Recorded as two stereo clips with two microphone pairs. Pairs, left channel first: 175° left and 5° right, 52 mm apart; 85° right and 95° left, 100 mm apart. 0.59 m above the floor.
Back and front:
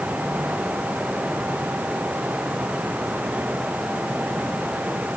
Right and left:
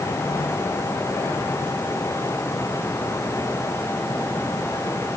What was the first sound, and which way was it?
Only background noise.